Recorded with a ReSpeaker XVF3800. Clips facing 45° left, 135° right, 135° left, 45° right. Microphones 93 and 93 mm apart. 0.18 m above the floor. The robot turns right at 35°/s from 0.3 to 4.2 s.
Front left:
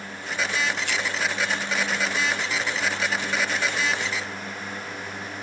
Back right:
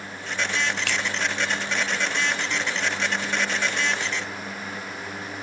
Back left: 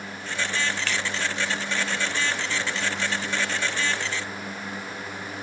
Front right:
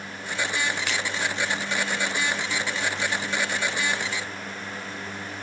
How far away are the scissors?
About 4 m.